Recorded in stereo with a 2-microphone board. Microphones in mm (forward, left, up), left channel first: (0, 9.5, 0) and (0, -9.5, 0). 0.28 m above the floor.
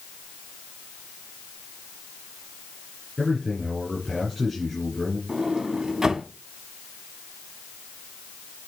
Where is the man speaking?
5° right (ahead or behind), 4 m.